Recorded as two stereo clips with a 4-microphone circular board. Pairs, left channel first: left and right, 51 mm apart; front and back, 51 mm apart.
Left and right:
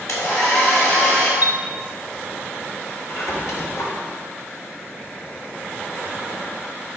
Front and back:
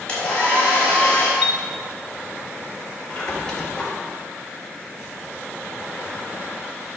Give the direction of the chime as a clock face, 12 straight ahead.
4 o'clock.